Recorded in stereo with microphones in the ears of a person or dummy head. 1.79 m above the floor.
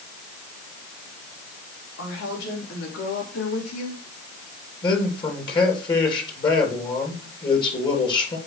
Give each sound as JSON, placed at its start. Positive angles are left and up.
{"t": 2.0, "sound": "a woman speaking", "side_deg": 80, "distance_m": 4.5}
{"t": 4.8, "sound": "a man speaking", "side_deg": 30, "distance_m": 4.0}